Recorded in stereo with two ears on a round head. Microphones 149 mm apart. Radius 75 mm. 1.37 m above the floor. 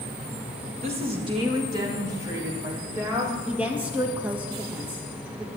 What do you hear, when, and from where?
0.8 s a woman speaking: 40° right (ahead or behind), 1.7 m; by 3.4 s 15° right (ahead or behind), 5 m
3.5 s a woman speaking: 10° right (ahead or behind), 2.0 m